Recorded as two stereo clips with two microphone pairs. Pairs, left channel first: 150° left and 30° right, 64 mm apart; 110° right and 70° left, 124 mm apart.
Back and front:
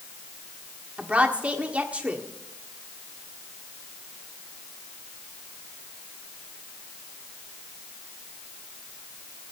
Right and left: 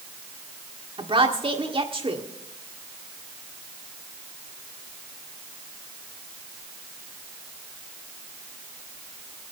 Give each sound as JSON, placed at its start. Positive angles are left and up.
{"t": 1.0, "sound": "a woman speaking", "azimuth_deg": 40, "distance_m": 1.7}